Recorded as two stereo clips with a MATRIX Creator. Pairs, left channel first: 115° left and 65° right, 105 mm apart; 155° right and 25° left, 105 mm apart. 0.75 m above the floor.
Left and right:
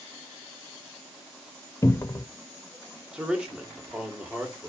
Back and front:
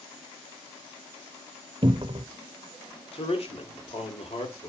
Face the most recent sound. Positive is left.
turn(degrees=-150)